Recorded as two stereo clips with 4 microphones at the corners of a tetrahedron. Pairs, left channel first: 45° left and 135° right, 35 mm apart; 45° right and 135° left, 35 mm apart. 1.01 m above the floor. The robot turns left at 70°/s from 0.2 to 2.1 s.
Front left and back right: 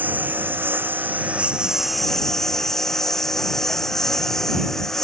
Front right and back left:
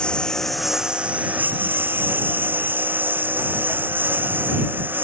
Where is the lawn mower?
105° right; by 5.0 s 120° left.